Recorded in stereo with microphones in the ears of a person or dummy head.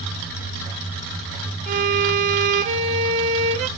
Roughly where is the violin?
Right.